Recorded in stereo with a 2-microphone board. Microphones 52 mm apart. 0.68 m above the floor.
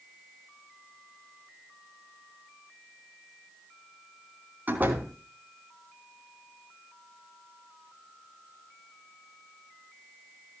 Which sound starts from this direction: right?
A door slam, at 4.7 s.